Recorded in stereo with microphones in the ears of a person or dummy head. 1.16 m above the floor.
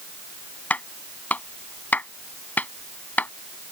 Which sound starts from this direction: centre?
A clap, at 0.7 s.